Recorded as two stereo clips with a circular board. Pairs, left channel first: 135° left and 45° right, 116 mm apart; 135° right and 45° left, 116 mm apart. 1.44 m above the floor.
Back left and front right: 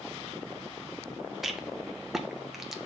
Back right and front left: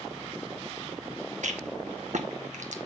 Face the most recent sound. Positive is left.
turn(degrees=45)